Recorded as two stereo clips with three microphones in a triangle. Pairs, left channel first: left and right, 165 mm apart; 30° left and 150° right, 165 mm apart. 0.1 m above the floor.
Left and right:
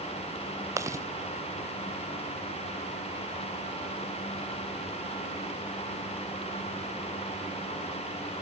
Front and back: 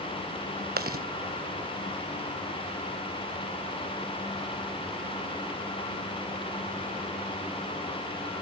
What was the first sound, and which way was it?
Chewing, 165° right.